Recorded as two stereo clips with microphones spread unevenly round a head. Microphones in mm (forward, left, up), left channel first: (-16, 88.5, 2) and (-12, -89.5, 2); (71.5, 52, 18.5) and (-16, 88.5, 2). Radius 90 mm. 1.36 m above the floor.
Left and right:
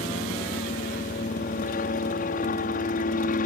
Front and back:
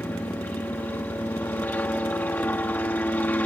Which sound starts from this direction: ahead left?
A helicopter, at 0.0 s.